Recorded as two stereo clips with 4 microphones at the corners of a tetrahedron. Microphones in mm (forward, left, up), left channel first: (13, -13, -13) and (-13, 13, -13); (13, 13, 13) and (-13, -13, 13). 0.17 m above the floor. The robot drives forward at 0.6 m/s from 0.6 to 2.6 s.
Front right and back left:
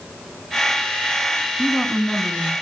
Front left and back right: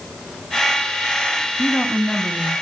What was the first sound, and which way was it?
A woman speaking, 50° left.